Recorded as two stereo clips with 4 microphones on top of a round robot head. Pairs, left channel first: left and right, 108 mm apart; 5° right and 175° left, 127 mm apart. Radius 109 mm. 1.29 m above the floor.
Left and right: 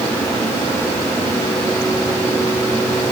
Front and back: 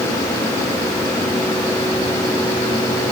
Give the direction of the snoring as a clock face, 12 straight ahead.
No snoring in this recording.